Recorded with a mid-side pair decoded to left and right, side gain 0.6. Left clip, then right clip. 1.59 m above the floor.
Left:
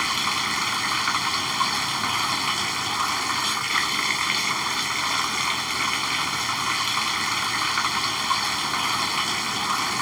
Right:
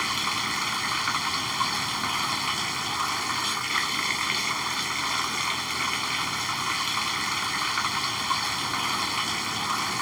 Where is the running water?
15° left.